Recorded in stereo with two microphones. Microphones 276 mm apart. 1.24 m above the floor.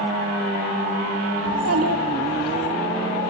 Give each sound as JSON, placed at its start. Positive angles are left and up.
{"t": 1.5, "sound": "a child speaking", "side_deg": -65, "distance_m": 1.2}